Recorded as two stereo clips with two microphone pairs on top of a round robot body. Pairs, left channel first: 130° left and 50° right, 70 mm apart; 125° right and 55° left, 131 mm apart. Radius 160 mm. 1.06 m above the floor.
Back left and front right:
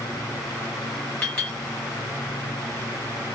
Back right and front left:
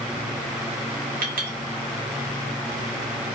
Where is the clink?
60° left, 0.8 m.